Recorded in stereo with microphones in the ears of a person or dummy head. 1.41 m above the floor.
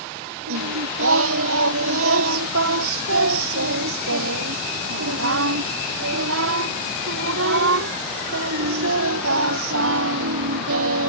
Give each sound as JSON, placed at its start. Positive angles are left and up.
{"t": 0.5, "sound": "singing", "side_deg": -85}